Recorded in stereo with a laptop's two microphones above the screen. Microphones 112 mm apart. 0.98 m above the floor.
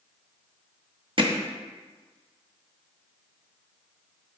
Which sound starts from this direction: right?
Hammering, at 1.2 s.